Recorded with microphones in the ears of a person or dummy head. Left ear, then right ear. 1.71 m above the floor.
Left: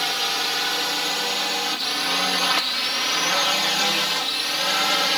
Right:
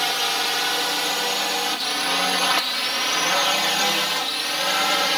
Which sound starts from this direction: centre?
A drone, at 0.0 s.